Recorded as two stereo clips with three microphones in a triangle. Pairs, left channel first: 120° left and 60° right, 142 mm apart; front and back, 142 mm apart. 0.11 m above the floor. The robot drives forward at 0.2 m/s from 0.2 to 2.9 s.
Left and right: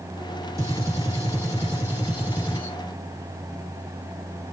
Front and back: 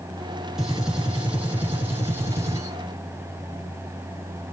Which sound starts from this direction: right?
A gunshot, at 0.6 s.